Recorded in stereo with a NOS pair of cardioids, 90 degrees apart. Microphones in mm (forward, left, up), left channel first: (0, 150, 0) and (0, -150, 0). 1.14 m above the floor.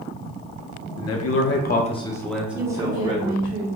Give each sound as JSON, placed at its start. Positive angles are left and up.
{"t": 1.0, "sound": "a man speaking", "azimuth_deg": 65, "distance_m": 0.8}
{"t": 2.5, "sound": "a woman speaking", "azimuth_deg": -25, "distance_m": 1.0}